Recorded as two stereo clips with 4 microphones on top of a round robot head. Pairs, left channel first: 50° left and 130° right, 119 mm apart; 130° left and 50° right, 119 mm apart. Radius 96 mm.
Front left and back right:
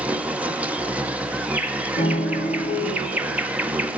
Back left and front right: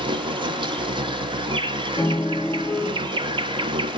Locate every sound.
0.0 s an insect: 55° right, 1.2 m
2.0 s a piano: 60° left, 5 m